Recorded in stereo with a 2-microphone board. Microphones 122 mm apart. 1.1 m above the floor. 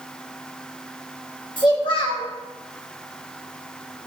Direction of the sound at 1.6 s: 40° left (ahead or behind).